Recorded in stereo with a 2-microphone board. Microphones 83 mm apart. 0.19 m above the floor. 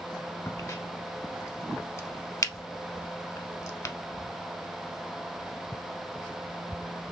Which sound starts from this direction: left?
A crack, at 0.5 s.